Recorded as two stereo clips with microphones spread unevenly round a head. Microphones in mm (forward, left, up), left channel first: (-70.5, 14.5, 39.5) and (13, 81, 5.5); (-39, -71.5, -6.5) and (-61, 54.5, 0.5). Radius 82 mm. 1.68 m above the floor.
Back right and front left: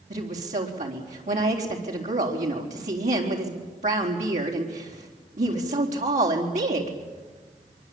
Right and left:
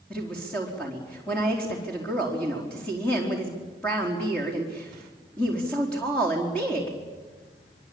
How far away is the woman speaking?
About 4 m.